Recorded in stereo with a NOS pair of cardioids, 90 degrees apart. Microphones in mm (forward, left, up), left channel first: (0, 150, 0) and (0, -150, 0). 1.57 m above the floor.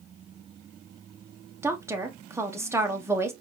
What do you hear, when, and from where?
1.6 s a woman speaking: 10° right, 1.3 m